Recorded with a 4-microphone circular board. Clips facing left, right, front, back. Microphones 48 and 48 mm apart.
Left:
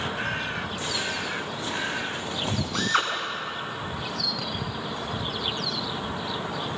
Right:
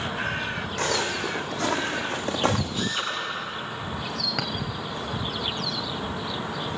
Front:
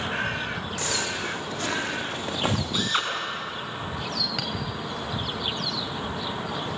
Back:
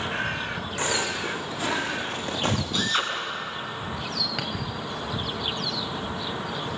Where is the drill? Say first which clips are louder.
Left 4 dB, even; 80° left, 6 m.